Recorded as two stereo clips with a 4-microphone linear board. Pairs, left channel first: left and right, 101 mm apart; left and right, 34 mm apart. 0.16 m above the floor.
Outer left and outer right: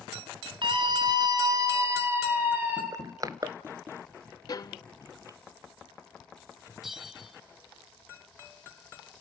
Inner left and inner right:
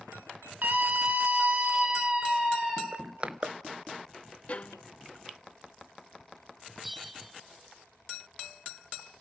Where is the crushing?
35° right (ahead or behind), 0.7 m.